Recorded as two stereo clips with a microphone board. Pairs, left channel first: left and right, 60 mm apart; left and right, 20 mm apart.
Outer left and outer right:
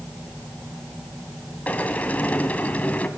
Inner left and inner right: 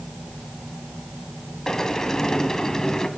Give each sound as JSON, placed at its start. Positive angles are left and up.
{"t": 1.7, "sound": "a sliding door", "side_deg": 25, "distance_m": 1.6}